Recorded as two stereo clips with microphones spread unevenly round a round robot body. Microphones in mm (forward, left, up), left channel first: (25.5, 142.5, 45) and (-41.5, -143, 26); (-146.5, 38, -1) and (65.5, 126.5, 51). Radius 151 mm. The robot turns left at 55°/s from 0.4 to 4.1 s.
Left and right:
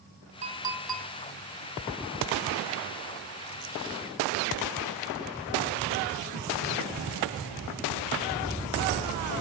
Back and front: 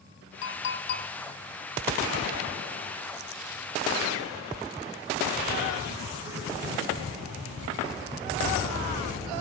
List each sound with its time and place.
0.4 s a clink: 165° right, 2.5 m; by 1.1 s 155° left, 2.5 m